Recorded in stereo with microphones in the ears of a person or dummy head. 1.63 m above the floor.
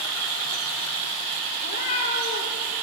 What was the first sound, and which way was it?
A cat meowing, 50° left (ahead or behind).